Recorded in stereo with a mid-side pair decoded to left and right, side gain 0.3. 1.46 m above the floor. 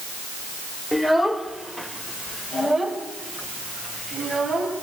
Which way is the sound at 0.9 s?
Straight ahead.